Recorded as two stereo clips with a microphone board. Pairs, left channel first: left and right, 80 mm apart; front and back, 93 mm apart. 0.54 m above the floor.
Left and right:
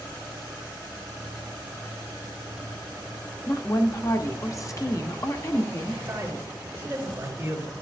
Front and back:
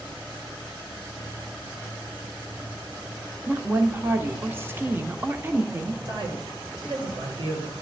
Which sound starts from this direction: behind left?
A woman speaking, at 3.5 s.